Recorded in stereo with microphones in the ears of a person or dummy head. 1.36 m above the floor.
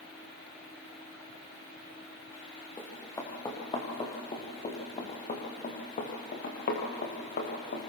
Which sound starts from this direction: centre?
Running footsteps, at 2.8 s.